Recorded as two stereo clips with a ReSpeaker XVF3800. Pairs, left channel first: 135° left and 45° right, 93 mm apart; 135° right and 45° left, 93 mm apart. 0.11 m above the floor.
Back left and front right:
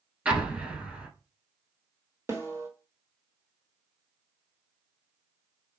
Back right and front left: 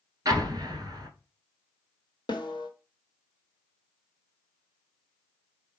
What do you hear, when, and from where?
0.2 s an explosion: 25° left, 1.2 m
2.3 s a snare drum: 105° right, 1.3 m